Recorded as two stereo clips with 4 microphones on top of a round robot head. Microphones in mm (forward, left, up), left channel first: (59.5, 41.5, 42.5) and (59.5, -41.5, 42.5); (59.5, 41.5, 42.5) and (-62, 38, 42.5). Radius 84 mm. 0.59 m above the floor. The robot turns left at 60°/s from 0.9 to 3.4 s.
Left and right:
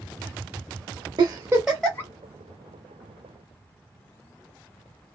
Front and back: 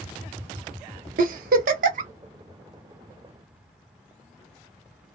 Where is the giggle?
145° right, 0.6 m; by 2.1 s 160° left, 0.6 m.